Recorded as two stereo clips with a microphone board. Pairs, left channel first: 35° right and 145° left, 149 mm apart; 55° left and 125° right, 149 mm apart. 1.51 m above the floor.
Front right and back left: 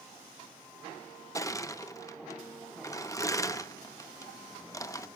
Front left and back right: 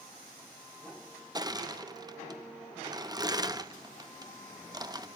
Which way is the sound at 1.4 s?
85° right.